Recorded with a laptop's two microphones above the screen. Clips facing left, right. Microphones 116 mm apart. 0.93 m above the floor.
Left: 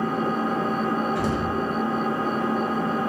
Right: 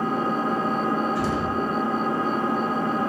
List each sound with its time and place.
0.0 s an engine running: 50° right (ahead or behind), 1.7 m
1.1 s an explosion: 55° left (ahead or behind), 0.7 m